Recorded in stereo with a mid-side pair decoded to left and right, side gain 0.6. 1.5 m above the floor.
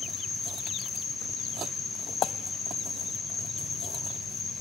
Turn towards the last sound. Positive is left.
turn(degrees=25)